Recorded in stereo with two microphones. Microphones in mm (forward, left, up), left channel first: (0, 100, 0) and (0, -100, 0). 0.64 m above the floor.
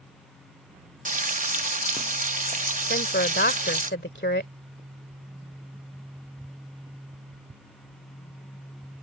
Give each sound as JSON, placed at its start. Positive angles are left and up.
{"t": 1.1, "sound": "frying", "side_deg": -40}
{"t": 2.9, "sound": "a woman speaking", "side_deg": 60}